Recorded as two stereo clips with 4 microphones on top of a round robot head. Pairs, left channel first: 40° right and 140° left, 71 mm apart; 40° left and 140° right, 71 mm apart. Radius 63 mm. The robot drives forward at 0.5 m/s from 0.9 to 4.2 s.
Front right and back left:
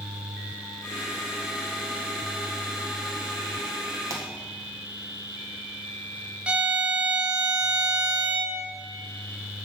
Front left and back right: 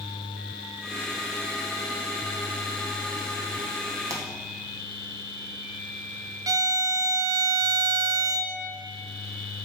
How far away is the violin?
About 0.5 m.